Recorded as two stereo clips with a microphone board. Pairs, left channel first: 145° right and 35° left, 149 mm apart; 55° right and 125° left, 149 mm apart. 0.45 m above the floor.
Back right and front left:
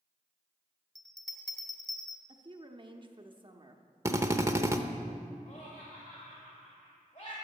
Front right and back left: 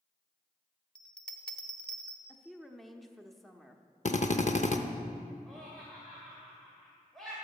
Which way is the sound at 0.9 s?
135° right.